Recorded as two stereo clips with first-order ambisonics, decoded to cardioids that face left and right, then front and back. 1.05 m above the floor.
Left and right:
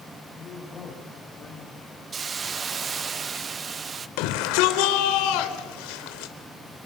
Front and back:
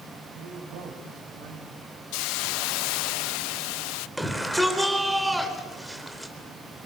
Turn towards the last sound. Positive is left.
turn(degrees=90)